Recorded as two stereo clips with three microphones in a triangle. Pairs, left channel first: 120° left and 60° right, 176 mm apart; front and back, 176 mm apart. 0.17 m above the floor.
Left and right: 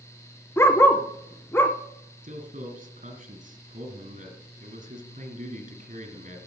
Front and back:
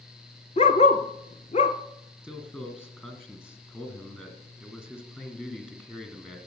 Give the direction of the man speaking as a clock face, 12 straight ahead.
3 o'clock.